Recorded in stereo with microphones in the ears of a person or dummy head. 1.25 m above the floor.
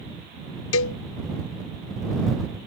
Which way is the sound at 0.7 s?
65° left (ahead or behind).